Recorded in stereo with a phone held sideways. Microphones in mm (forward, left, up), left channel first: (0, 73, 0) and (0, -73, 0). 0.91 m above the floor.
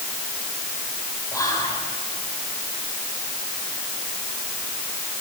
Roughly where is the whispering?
Left.